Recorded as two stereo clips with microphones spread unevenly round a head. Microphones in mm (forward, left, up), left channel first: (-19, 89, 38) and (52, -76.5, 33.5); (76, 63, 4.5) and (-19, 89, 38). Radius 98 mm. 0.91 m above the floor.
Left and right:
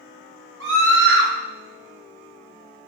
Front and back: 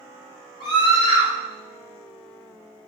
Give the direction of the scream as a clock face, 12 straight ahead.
2 o'clock.